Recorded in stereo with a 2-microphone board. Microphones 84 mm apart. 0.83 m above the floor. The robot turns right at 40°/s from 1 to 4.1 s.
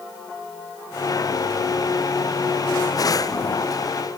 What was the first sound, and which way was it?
Only background noise.